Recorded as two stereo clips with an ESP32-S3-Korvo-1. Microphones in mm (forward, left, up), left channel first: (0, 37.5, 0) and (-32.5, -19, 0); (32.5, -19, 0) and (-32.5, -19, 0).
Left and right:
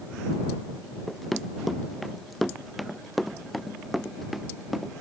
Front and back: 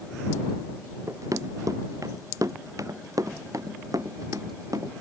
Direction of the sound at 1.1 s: 150° left.